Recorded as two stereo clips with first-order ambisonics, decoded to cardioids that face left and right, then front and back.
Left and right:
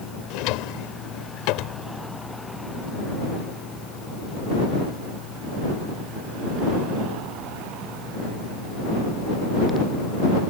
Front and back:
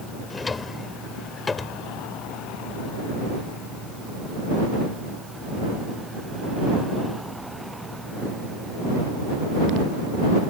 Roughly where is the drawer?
Left.